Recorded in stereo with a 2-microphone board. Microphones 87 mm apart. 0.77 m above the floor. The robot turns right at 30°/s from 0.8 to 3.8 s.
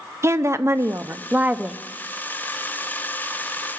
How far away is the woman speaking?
About 0.6 m.